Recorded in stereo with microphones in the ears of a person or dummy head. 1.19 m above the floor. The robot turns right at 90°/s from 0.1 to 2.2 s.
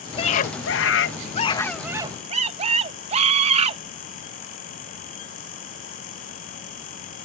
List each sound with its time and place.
0.2 s a scream: 30° left; by 3.8 s 145° right